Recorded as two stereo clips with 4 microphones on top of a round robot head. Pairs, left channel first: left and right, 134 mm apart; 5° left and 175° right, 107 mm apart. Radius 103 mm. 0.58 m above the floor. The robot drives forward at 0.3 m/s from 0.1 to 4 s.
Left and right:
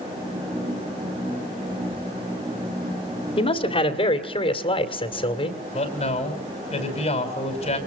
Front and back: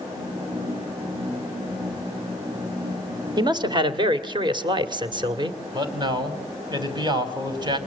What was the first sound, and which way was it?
A man speaking, 140° left.